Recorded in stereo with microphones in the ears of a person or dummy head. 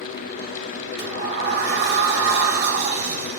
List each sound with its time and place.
1.0 s a sliding door: 55° right (ahead or behind), 1.5 m